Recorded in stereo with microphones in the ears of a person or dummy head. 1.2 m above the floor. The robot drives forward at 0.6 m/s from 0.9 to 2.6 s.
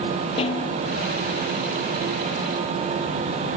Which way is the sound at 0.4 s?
35° left (ahead or behind).